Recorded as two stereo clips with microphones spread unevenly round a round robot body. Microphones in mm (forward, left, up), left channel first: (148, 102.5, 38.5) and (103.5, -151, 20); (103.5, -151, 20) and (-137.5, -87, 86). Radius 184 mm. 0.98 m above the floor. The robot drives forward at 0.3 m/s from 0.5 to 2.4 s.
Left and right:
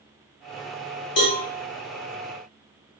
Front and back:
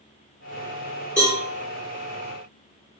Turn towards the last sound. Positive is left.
turn(degrees=120)